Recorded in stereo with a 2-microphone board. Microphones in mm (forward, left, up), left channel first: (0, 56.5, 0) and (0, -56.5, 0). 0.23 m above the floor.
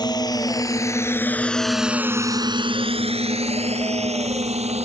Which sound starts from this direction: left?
A drone, at 0.0 s.